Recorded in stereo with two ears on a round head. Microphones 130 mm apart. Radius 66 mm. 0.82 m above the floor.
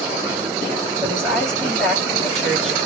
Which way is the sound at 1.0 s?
5° left (ahead or behind).